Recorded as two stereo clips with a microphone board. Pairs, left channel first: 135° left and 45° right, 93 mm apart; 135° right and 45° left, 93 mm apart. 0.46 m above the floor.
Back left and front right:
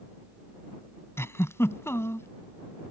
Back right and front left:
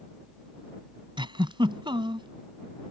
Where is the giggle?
75° left.